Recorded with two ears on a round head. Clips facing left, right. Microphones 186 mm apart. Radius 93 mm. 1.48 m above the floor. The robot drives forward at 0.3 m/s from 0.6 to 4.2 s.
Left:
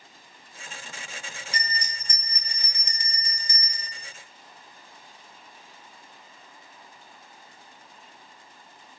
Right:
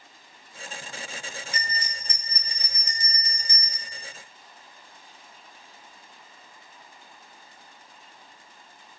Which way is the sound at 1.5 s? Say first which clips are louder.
Even; 30° left (ahead or behind).